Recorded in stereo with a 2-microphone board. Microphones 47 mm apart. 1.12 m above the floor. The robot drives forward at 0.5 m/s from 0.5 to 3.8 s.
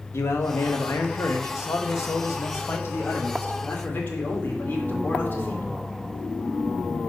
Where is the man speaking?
65° left (ahead or behind), 1.2 m; by 5.7 s 45° left (ahead or behind), 1.6 m.